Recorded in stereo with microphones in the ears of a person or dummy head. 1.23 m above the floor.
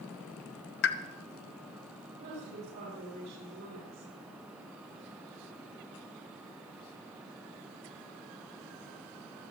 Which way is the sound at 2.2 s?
55° right (ahead or behind).